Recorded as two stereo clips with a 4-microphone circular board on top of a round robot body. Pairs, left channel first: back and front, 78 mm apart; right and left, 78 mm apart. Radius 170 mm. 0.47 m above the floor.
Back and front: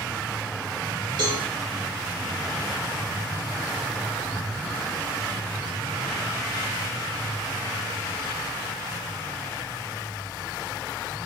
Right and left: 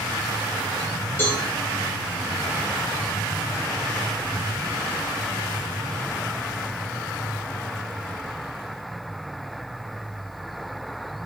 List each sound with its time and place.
1.2 s a cowbell: 25° right, 2 m